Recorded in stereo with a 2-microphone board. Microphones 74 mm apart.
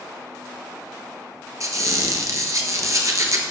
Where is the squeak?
45° right (ahead or behind), 1.2 m.